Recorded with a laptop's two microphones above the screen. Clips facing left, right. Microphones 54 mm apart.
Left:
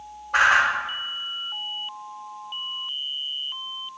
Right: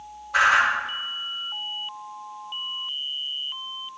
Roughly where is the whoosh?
Left.